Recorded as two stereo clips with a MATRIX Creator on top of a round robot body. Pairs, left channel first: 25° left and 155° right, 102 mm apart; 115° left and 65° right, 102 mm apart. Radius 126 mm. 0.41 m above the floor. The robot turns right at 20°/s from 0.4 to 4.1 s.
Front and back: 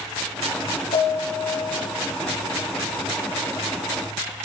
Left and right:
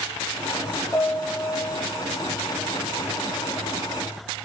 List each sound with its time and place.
0.9 s a piano: 35° left, 9 m; by 1.9 s 55° left, 9 m